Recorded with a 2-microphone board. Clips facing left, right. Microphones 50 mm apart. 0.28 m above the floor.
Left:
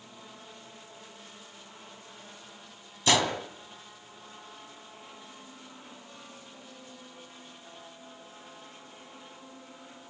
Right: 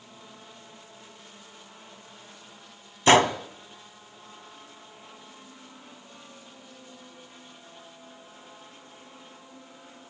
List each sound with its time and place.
3.1 s a gunshot: 35° right (ahead or behind), 1.2 m